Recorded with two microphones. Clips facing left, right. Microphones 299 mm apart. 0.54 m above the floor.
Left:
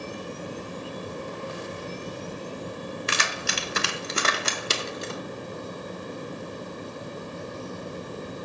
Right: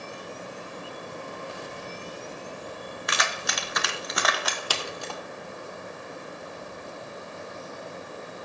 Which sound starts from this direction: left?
Keys jangling, at 3.1 s.